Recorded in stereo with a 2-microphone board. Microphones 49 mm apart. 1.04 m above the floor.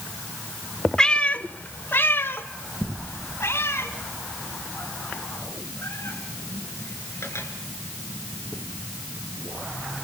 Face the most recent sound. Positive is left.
turn(degrees=70)  # may be behind; listen again after turning